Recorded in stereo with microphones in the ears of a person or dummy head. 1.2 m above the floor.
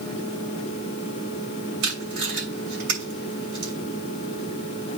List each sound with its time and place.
1.8 s tape being pulled: 65° right (ahead or behind), 6.5 m